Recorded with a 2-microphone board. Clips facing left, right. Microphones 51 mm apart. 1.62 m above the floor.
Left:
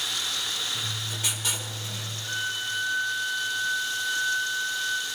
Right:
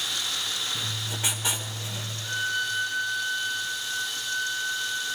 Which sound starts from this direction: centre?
A violin, at 2.2 s.